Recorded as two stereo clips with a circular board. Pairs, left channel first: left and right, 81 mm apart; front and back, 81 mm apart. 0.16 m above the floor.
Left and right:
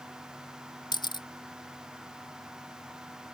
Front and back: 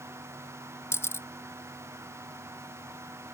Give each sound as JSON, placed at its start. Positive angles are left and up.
{"t": 0.9, "sound": "a camera shutter", "azimuth_deg": 60}